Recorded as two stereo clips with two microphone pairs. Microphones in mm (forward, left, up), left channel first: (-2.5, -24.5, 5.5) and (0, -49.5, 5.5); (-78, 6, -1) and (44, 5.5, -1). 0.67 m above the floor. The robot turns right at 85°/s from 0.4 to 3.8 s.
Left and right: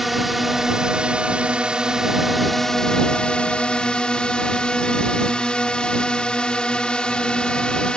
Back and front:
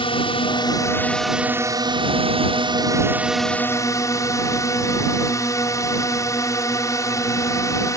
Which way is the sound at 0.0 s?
165° right.